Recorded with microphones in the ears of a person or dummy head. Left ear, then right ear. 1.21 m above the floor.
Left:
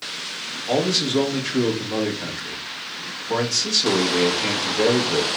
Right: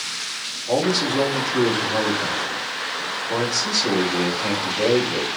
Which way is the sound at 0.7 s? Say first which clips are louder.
Even; 50° left (ahead or behind).